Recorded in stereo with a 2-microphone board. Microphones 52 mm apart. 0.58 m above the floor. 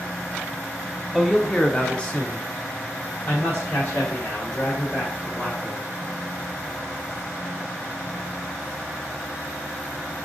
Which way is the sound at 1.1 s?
5° left (ahead or behind).